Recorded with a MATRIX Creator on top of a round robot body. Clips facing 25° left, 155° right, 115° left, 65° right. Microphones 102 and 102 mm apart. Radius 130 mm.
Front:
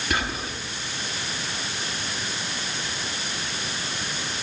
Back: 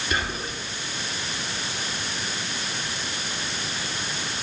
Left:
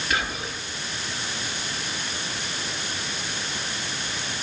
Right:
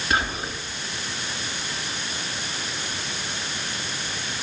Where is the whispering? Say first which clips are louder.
Front 1 dB, right 4 dB; 5° right, 5.5 m.